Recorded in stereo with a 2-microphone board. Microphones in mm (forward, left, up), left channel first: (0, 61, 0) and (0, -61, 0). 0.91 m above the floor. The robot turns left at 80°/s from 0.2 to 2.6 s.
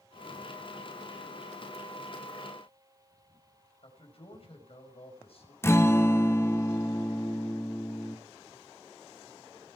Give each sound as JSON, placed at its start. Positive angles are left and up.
{"t": 3.8, "sound": "a man speaking", "side_deg": 50, "distance_m": 5.0}
{"t": 5.6, "sound": "a guitar", "side_deg": 20, "distance_m": 0.8}